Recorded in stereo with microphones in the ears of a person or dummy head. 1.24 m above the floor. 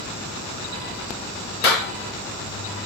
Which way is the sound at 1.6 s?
50° left (ahead or behind).